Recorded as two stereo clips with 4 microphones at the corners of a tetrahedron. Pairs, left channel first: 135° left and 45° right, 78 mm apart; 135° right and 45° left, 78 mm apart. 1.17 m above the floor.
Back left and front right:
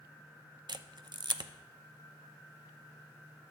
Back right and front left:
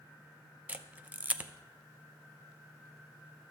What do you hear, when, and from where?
0.7 s a camera shutter: 25° right, 0.6 m